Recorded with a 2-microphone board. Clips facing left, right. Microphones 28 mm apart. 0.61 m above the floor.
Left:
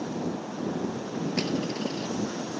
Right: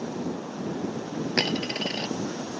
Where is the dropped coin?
75° right (ahead or behind).